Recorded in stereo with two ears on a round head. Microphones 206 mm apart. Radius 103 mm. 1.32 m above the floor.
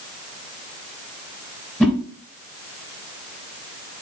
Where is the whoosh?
5° left (ahead or behind), 3.5 m.